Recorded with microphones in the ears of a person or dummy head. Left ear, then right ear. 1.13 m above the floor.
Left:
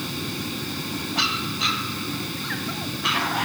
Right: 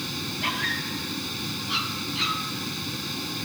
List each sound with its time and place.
0.0 s a fan: 10° right (ahead or behind)